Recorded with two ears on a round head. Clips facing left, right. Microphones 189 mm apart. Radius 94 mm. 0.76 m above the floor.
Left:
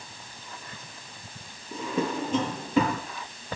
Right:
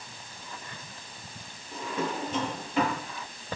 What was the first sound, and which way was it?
A drawer, 75° left (ahead or behind).